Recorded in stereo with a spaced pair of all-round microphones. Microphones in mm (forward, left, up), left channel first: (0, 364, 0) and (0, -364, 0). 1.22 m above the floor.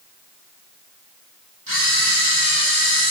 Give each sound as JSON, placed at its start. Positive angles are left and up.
{"t": 1.7, "sound": "a camera shutter", "side_deg": -25, "distance_m": 2.0}